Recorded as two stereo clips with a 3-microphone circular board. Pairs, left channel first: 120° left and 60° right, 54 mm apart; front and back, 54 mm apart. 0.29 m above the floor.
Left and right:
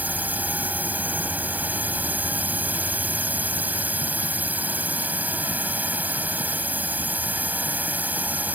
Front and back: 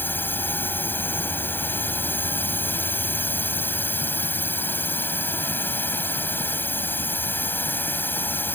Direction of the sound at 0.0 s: 20° right.